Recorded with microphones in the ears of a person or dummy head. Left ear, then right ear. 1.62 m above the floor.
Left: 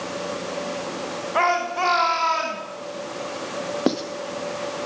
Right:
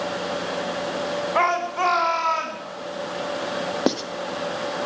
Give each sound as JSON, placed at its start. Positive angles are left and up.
{"t": 1.4, "sound": "a shout", "side_deg": -20, "distance_m": 1.9}
{"t": 3.9, "sound": "writing", "side_deg": -20, "distance_m": 0.6}